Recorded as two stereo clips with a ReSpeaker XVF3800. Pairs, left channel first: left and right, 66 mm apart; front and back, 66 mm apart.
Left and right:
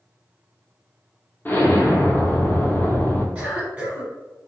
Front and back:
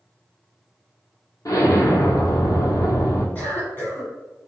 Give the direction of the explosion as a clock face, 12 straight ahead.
11 o'clock.